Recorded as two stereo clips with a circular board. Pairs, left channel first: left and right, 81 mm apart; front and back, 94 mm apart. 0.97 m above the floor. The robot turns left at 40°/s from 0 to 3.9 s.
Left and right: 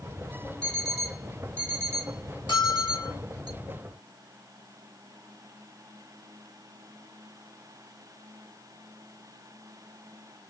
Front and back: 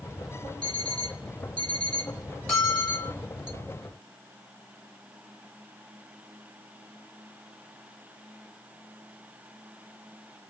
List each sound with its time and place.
0.6 s an alarm clock: 10° left, 1.2 m; by 3.5 s 105° right, 1.2 m
2.5 s a bell: 85° left, 2 m; by 3.1 s 60° left, 2 m